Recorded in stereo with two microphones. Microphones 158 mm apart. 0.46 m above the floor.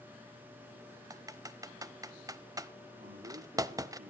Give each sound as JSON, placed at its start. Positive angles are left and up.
{"t": 1.1, "sound": "typing on a keyboard", "side_deg": -25, "distance_m": 0.7}
{"t": 3.0, "sound": "a man speaking", "side_deg": -75, "distance_m": 5.0}